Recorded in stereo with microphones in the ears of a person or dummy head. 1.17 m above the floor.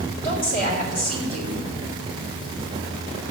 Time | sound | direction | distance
0.2 | a woman speaking | 50° left (ahead or behind) | 4 m